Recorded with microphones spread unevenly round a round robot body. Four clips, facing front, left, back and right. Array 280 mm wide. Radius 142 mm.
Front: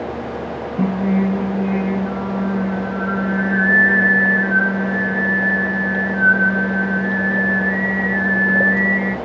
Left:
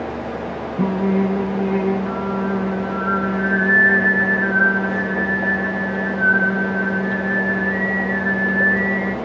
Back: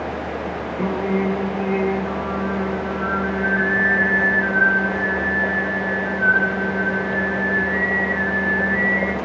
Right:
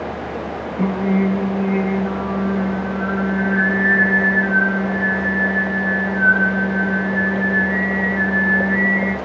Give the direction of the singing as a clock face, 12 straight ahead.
11 o'clock.